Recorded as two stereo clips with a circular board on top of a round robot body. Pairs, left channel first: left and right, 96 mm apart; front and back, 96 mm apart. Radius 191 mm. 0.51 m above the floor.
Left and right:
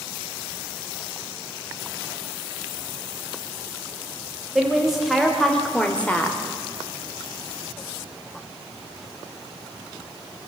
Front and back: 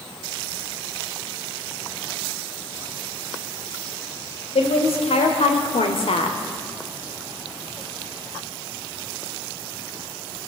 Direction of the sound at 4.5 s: 5° right.